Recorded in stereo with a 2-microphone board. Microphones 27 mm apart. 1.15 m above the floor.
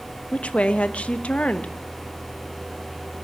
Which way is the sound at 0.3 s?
50° left (ahead or behind).